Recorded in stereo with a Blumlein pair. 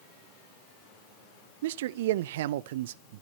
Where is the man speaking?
55° right, 0.5 m.